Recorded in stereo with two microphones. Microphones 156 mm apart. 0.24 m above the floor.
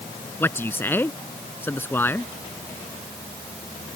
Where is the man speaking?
15° left (ahead or behind).